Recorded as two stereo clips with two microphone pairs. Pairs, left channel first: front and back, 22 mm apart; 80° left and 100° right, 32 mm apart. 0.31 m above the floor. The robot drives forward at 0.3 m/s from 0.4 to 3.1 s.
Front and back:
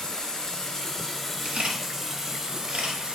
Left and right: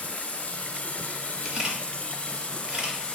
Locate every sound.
0.0 s running water: 50° left, 0.8 m; by 3.2 s 135° left, 0.8 m
1.4 s a camera shutter: 165° right, 1.3 m; by 3.0 s 170° right, 1.8 m